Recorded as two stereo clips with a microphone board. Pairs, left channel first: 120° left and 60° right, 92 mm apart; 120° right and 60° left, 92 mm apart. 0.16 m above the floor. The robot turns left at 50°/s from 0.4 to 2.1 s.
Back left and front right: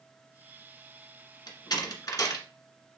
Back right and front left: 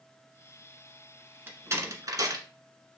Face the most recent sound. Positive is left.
turn(degrees=90)